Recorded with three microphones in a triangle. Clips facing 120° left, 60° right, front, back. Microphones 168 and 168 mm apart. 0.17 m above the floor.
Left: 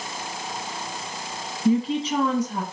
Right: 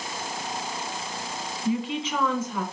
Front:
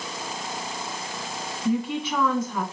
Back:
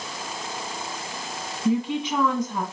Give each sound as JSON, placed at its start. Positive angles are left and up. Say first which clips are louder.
{"t": 1.6, "sound": "a woman speaking", "louder": "left 6 dB, back 2 dB", "azimuth_deg": 120, "distance_m": 1.5}